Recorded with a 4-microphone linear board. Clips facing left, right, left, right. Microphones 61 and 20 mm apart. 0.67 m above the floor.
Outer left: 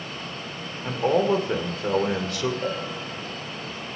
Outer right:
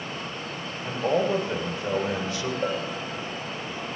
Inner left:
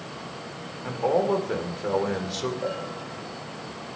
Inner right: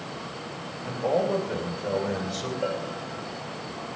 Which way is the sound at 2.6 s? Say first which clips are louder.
Outer right 1 dB, inner right 1 dB; 5° left (ahead or behind).